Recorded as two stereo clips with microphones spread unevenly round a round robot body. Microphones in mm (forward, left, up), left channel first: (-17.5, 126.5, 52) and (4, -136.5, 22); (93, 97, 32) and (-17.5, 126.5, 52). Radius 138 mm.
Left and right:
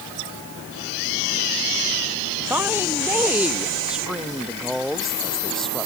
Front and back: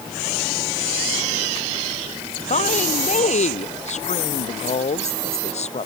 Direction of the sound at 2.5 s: Straight ahead.